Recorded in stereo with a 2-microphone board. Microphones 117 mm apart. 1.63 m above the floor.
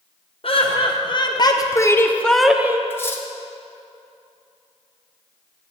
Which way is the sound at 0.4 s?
50° left (ahead or behind).